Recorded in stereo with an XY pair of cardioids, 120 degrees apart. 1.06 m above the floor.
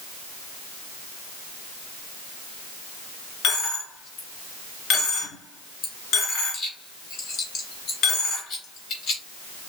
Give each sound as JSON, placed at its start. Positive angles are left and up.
{"t": 3.4, "sound": "a dropped coin", "azimuth_deg": 60, "distance_m": 3.0}